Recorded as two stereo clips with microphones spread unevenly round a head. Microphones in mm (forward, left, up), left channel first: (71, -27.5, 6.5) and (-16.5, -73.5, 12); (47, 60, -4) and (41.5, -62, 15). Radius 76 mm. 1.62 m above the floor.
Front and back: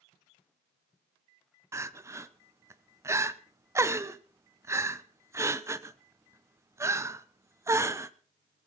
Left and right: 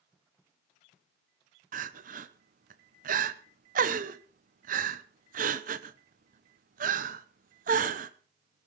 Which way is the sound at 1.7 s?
90° right.